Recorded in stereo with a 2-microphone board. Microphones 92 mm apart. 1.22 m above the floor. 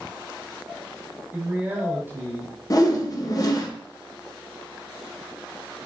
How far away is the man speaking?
About 1.1 m.